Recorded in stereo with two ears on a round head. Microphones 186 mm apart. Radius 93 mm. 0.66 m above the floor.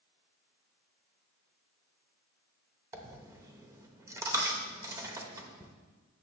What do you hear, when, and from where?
2.9 s a dropped coin: 15° right (ahead or behind), 0.8 m